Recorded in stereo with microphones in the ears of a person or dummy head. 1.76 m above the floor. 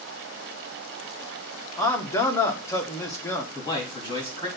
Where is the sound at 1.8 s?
15° left (ahead or behind), 1.4 m.